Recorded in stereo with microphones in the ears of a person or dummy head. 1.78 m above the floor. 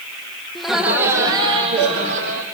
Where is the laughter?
5° left (ahead or behind), 1.4 m; by 2.4 s 45° right (ahead or behind), 2 m.